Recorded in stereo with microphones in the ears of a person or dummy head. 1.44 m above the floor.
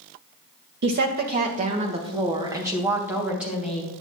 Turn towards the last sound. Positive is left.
turn(degrees=-5)  # may be behind; listen again after turning